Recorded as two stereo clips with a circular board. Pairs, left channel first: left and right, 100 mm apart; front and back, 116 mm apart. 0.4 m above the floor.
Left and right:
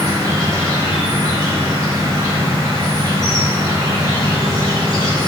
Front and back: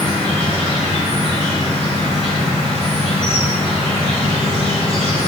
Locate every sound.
0.0 s an insect: 35° right, 1.3 m